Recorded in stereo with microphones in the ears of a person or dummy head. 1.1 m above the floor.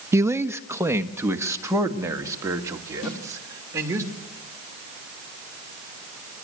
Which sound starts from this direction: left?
A snare drum, at 3.0 s.